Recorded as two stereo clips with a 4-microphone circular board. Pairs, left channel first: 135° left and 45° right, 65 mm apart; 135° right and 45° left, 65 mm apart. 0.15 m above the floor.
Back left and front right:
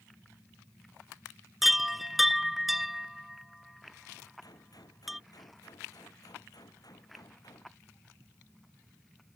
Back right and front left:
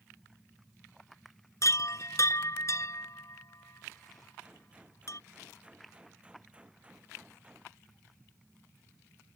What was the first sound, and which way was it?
A chime, 130° right.